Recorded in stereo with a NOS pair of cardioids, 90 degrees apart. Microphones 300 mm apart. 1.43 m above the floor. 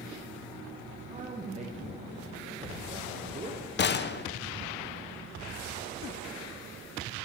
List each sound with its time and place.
1.1 s a man speaking: 25° right, 1.0 m
3.8 s a gunshot: 40° left, 0.5 m